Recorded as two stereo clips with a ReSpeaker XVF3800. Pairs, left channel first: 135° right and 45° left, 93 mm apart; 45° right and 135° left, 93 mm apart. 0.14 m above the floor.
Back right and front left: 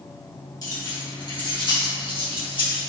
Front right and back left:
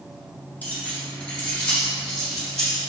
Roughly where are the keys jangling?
Right.